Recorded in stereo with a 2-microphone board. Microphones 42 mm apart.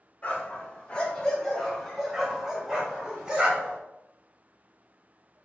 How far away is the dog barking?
About 1.5 m.